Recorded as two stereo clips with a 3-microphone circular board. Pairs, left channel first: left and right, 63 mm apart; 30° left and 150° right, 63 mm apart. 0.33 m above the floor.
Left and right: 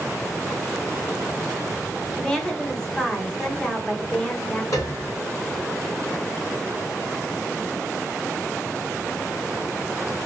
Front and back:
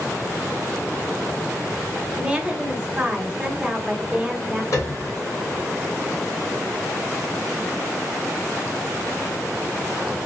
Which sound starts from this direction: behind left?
A woman speaking, at 2.2 s.